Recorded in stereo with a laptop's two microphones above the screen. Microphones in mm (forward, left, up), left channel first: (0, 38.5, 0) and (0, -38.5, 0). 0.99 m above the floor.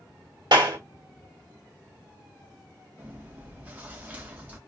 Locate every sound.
0.5 s a clap: 65° right (ahead or behind), 1.4 m
3.0 s chewing: 20° right (ahead or behind), 0.8 m